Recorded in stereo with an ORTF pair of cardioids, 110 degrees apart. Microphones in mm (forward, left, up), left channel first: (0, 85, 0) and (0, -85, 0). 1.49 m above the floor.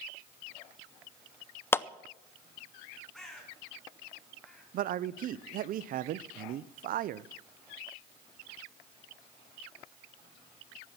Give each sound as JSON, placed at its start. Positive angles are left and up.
{"t": 1.7, "sound": "a clap", "azimuth_deg": 15, "distance_m": 0.5}
{"t": 3.1, "sound": "a bird", "azimuth_deg": 5, "distance_m": 4.0}
{"t": 4.7, "sound": "a man speaking", "azimuth_deg": -55, "distance_m": 0.6}